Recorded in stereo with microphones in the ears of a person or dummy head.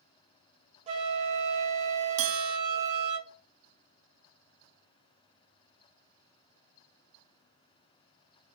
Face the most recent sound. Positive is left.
turn(degrees=-70)  # may be behind; listen again after turning